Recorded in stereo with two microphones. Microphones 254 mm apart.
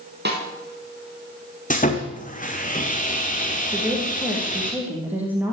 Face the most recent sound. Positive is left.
turn(degrees=-5)  # may be behind; listen again after turning